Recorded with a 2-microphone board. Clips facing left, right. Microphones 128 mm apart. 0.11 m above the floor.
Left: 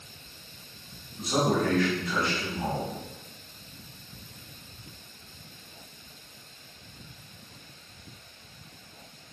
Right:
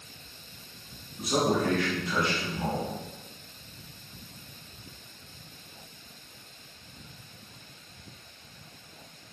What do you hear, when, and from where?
1.2 s a man speaking: 20° right (ahead or behind), 1.3 m